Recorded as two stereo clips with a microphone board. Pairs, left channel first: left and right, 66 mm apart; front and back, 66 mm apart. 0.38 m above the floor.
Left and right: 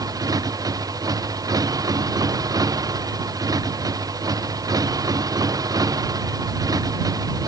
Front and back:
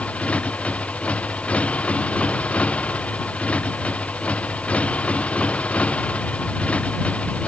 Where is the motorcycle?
70° right.